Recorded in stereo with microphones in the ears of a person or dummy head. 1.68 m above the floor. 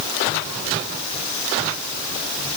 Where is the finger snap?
No finger snap in this recording.